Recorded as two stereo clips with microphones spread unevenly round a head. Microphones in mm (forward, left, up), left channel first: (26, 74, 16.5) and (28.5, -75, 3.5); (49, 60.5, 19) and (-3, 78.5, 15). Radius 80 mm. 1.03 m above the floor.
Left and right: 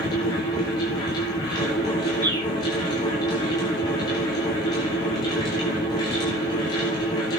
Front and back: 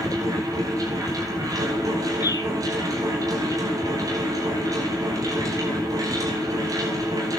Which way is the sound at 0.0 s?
160° left.